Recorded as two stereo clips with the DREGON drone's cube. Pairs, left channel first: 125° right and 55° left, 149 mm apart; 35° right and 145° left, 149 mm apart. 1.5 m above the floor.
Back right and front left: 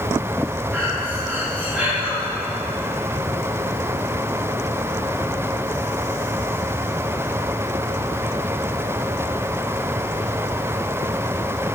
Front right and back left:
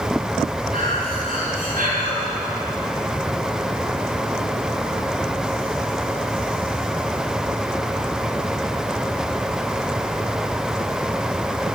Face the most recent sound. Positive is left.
turn(degrees=135)